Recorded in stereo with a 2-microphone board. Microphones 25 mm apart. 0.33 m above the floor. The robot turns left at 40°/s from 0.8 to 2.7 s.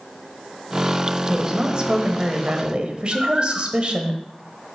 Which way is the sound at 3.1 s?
30° right (ahead or behind).